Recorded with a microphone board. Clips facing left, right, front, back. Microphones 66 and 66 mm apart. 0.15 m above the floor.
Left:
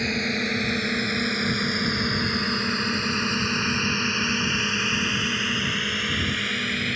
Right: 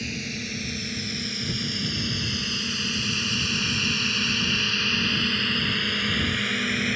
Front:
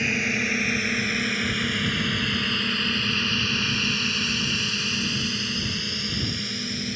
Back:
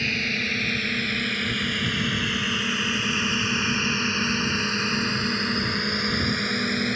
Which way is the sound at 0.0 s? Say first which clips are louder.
Left 7 dB, front 2 dB; 70° left.